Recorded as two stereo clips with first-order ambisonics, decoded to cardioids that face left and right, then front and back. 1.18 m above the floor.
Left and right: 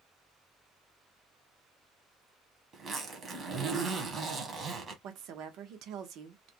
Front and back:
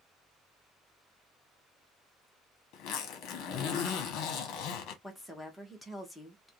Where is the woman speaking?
90° right, 0.8 m.